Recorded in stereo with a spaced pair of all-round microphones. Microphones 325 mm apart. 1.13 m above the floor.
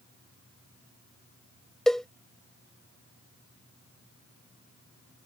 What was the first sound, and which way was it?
A cowbell, centre (ahead or behind).